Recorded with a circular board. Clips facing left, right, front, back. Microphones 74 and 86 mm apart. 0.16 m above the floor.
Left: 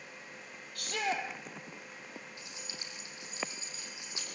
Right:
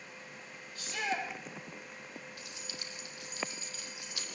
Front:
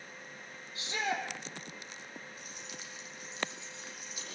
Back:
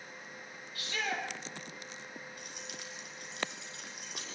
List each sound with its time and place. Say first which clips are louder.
0.8 s a shout: left 1 dB, front 2 dB; 65° left, 5 m
2.4 s keys jangling: right 1 dB, back 1 dB; 155° left, 4.5 m